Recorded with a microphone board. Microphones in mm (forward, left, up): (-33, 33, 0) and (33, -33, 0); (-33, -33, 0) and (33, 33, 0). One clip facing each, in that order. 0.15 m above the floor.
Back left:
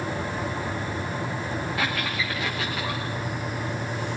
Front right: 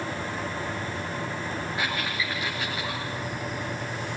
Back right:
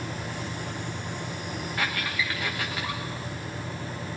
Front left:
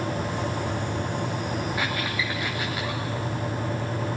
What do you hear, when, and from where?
1.8 s a squeak: 120° left, 8 m